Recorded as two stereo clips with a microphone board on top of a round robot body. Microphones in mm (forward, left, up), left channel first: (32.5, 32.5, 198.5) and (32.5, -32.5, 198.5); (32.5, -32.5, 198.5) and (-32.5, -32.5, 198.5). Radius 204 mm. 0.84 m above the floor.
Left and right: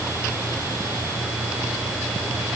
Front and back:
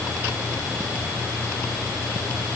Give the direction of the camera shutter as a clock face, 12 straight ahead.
I don't hear a camera shutter.